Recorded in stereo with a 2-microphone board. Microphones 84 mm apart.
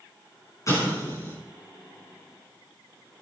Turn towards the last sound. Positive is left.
turn(degrees=40)  # may be behind; listen again after turning